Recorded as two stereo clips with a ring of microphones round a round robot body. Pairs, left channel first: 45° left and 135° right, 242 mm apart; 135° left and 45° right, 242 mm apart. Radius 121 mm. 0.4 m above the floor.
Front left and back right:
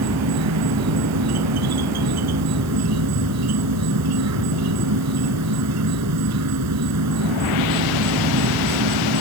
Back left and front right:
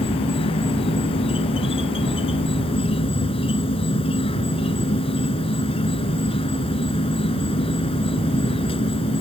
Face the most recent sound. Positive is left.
turn(degrees=-155)